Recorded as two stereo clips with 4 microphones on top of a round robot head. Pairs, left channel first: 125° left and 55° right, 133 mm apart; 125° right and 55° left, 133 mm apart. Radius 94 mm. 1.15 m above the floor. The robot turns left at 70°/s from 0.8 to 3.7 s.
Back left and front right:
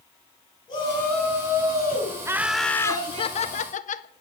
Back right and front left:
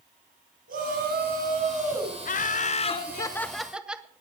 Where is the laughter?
120° right, 0.9 m; by 4.1 s 135° left, 0.9 m.